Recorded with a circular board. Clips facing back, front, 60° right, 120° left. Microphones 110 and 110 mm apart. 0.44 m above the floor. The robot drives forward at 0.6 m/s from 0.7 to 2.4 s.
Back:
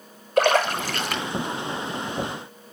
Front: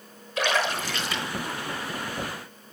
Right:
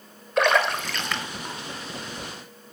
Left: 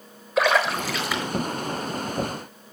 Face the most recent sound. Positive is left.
turn(degrees=-165)